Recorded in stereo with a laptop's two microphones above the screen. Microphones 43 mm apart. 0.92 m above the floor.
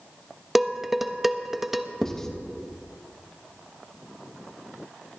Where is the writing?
15° left (ahead or behind), 1.2 m.